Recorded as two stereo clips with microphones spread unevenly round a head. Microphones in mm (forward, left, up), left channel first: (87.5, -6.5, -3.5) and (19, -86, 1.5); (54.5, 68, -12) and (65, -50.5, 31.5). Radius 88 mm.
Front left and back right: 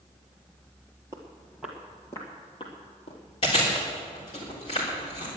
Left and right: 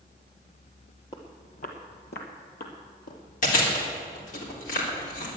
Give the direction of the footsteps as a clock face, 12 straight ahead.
6 o'clock.